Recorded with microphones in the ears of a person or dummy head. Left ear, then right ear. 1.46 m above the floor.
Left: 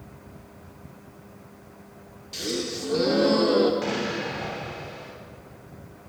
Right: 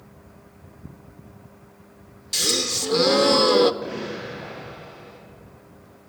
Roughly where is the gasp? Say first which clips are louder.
Right 8 dB; right.